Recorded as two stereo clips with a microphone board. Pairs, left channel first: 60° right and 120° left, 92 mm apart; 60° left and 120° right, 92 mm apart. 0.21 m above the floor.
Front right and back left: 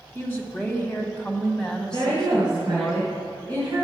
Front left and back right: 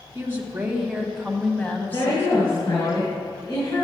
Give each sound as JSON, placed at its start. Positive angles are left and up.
{"t": 0.1, "sound": "a woman speaking", "azimuth_deg": -110, "distance_m": 1.1}
{"t": 1.9, "sound": "a woman speaking", "azimuth_deg": 85, "distance_m": 2.5}